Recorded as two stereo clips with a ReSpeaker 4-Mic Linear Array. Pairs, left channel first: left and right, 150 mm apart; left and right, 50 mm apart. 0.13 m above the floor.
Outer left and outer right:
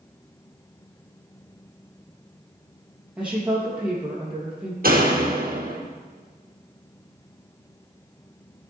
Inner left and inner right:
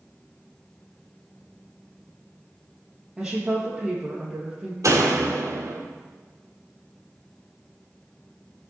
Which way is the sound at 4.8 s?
70° right (ahead or behind).